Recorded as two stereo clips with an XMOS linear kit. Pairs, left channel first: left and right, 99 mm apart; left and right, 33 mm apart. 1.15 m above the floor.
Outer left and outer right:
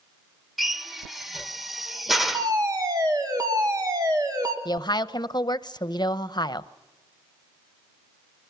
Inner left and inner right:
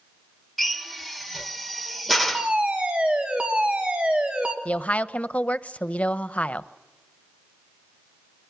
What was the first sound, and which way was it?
A drill, centre (ahead or behind).